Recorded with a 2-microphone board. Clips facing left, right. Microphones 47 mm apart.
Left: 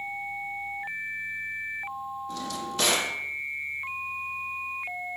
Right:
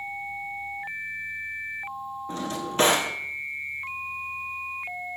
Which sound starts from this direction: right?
A drawer, at 2.3 s.